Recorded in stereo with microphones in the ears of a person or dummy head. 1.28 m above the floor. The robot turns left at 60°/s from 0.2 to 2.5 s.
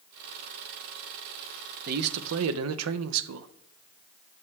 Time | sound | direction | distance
1.9 | a man speaking | 40° right | 0.5 m